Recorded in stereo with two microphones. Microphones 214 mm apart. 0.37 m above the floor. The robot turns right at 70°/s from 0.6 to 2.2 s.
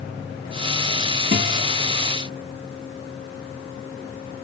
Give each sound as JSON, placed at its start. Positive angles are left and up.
{"t": 1.3, "sound": "a guitar", "side_deg": -50, "distance_m": 2.5}